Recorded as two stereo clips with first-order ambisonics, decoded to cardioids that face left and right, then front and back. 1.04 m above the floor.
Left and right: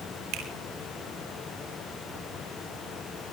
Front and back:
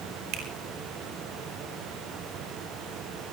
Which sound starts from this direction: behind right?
A finger snap, at 0.3 s.